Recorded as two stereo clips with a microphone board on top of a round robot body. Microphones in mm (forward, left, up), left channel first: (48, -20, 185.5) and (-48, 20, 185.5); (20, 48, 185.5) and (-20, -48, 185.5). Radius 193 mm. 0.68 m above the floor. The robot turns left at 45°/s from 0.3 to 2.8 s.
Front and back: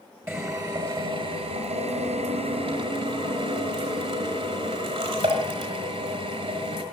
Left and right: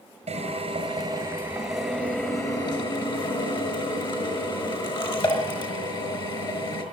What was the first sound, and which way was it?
A drill, 135° right.